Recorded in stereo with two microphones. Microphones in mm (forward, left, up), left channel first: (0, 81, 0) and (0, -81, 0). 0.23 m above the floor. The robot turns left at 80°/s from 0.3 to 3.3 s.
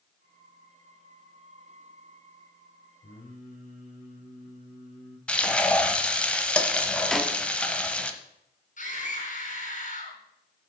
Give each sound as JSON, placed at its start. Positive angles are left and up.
{"t": 3.0, "sound": "singing", "side_deg": 70, "distance_m": 4.5}
{"t": 5.3, "sound": "frying", "side_deg": 5, "distance_m": 1.0}
{"t": 7.1, "sound": "a snare drum", "side_deg": 0, "distance_m": 0.7}
{"t": 8.8, "sound": "a scream", "side_deg": 50, "distance_m": 3.0}